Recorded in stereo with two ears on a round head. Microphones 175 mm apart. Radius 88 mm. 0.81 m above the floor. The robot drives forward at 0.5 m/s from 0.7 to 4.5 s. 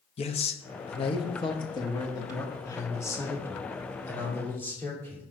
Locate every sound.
0.2 s a man speaking: 30° left (ahead or behind), 0.8 m; by 5.2 s 10° left (ahead or behind), 2.5 m